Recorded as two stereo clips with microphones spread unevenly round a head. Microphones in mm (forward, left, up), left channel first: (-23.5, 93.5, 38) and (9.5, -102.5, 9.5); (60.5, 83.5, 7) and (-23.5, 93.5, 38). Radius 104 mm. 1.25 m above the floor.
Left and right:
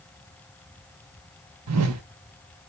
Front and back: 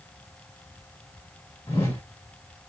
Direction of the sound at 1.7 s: 85° right.